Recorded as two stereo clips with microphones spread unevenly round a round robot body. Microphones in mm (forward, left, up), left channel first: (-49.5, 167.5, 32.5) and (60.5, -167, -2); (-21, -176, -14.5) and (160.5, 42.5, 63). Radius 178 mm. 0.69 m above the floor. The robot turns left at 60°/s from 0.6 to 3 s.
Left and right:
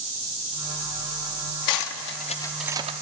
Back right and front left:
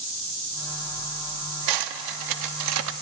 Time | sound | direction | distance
1.7 | cutlery clinking | 70° left | 0.7 m